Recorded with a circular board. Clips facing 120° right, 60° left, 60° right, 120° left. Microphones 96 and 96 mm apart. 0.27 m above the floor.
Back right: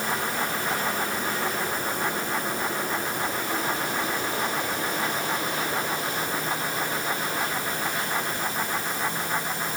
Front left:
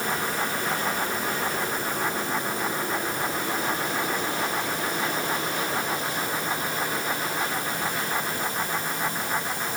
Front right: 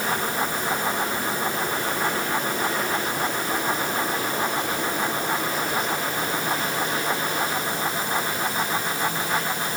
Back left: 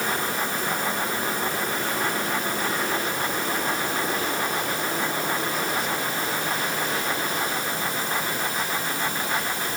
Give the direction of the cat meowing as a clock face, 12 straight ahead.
I don't hear a cat meowing.